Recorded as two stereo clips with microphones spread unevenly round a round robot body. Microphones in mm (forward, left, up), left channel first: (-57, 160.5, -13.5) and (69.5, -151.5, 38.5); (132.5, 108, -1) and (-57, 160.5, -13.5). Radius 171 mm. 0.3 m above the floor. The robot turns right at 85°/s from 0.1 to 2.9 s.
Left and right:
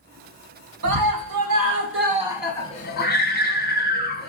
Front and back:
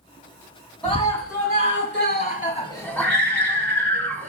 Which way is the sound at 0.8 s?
110° right.